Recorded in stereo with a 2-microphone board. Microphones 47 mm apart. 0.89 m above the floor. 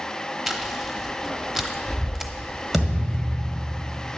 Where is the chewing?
10° right (ahead or behind), 0.9 m.